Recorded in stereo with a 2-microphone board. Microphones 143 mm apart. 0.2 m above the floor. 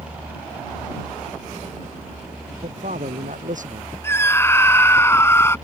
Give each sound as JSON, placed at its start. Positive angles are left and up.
{"t": 2.6, "sound": "a man speaking", "side_deg": -65}
{"t": 4.0, "sound": "a scream", "side_deg": 15}